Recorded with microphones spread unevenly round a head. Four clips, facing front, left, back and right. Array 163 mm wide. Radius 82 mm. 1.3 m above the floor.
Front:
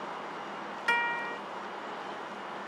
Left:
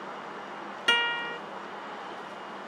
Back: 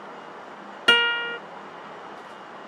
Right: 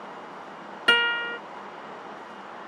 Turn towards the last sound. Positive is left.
turn(degrees=-160)